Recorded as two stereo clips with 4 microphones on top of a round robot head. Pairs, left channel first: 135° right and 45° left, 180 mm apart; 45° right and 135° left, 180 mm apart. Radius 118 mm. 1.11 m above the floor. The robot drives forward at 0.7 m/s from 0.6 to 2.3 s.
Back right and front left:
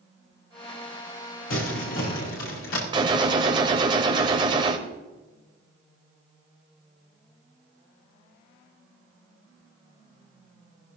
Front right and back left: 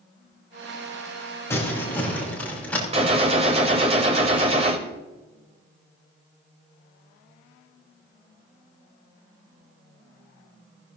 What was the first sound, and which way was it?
Crumpling, 120° right.